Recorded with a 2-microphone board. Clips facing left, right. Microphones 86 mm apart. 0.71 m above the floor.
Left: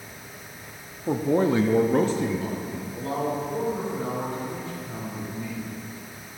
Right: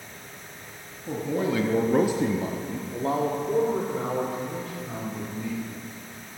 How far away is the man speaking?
About 0.8 m.